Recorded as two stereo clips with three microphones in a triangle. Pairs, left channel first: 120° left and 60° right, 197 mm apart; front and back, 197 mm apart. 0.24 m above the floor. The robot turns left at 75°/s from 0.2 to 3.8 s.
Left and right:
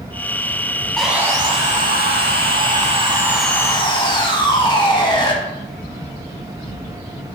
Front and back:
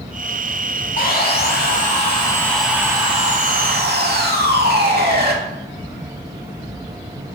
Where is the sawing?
35° left, 0.7 m; by 5.3 s straight behind, 0.7 m.